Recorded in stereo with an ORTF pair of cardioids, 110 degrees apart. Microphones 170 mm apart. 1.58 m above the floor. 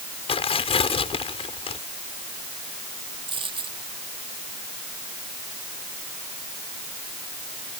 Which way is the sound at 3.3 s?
30° right.